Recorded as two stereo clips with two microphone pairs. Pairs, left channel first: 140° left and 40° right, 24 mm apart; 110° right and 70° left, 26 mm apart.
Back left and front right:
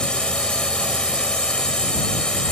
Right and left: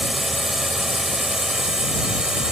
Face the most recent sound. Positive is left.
turn(degrees=115)